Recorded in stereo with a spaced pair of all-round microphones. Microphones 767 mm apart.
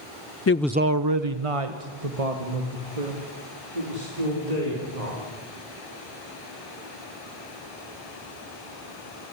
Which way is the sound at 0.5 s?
25° left (ahead or behind).